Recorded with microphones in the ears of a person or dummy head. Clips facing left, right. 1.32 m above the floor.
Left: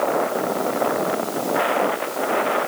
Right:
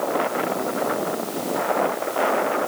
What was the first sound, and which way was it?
Only background noise.